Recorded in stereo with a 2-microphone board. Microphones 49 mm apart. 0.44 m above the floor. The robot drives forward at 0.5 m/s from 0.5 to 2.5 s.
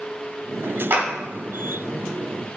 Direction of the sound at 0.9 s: 55° right (ahead or behind).